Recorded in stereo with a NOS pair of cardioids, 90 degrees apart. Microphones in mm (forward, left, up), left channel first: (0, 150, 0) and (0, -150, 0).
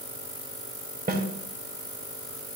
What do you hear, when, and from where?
1.1 s a snare drum: 30° right, 2.5 m